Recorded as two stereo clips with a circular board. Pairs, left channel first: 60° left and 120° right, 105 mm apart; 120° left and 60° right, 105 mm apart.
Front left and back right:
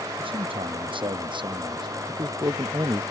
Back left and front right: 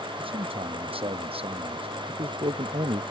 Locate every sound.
0.2 s a man speaking: 90° right; by 3.0 s 70° right